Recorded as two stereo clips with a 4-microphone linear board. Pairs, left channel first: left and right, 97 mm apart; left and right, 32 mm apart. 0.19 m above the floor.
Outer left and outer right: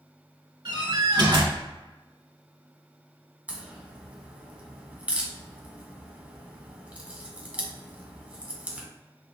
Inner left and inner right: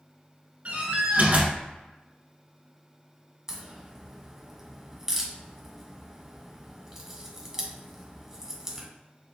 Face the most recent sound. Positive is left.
turn(degrees=-15)  # may be behind; listen again after turning